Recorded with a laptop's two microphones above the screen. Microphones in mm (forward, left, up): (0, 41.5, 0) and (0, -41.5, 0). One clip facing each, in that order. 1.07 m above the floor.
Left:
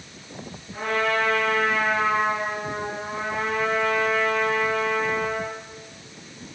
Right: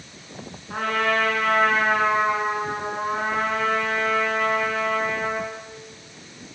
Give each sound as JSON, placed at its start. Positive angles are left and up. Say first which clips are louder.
{"t": 0.7, "sound": "a trumpet", "louder": "right 1 dB", "side_deg": -70, "distance_m": 9.5}